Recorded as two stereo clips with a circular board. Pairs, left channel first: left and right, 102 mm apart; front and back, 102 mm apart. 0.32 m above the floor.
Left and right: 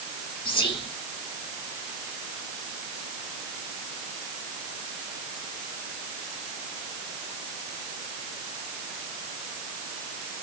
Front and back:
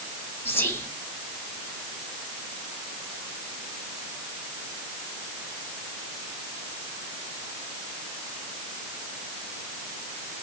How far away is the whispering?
About 1.8 m.